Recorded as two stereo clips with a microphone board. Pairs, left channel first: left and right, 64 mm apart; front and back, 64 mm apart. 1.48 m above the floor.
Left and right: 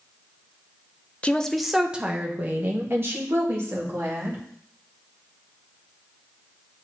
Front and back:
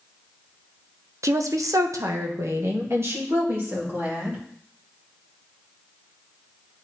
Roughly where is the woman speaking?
Behind.